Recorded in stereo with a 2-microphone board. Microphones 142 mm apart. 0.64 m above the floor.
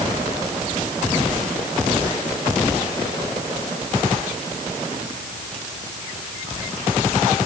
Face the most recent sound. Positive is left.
No sound to turn to.